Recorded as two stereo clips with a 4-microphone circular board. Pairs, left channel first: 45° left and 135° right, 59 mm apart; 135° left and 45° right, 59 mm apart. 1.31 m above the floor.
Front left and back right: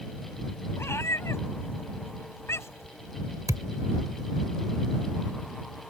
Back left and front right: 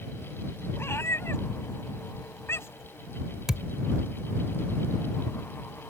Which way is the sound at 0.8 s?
90° left.